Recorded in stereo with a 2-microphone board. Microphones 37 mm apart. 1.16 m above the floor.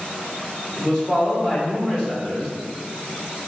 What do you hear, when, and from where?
0.8 s a man speaking: 20° left (ahead or behind), 2.0 m